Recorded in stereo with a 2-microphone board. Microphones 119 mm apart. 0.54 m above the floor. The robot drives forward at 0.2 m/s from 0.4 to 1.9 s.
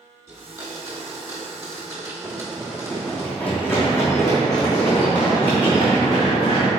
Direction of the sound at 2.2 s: 20° right (ahead or behind).